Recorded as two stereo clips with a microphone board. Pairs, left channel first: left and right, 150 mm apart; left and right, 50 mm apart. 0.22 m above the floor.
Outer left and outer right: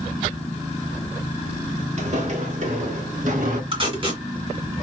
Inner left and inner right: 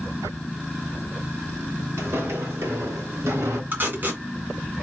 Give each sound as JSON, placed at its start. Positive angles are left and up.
{"t": 2.0, "sound": "footsteps", "side_deg": -55, "distance_m": 2.5}
{"t": 3.7, "sound": "tape being pulled", "side_deg": -40, "distance_m": 2.5}